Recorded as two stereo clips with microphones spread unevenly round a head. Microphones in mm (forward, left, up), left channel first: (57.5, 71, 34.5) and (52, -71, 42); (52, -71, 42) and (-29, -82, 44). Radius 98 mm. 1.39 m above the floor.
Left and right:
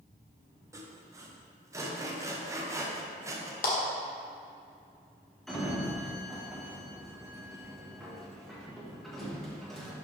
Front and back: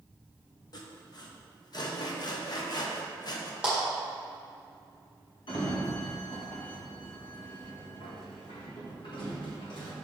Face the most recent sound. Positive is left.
turn(degrees=0)